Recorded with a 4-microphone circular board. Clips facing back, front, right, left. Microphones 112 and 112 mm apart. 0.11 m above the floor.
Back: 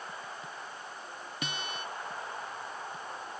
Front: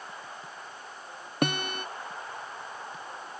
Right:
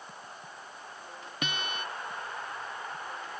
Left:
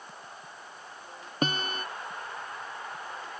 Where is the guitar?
35° left.